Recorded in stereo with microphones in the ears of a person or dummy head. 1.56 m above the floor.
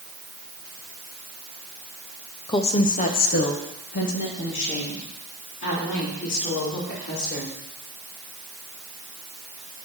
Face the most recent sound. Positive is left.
turn(degrees=65)  # may be behind; listen again after turning